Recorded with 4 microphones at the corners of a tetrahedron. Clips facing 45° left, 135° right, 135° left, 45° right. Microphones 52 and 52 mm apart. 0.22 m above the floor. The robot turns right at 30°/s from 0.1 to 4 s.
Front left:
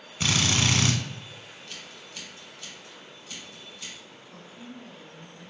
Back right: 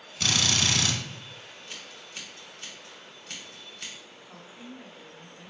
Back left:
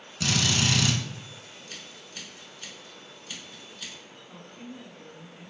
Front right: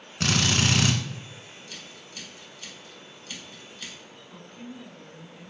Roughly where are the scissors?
Behind.